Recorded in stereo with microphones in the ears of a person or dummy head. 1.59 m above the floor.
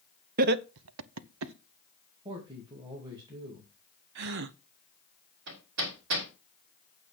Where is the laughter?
50° right (ahead or behind), 0.9 m; by 1.5 s 60° right (ahead or behind), 0.9 m.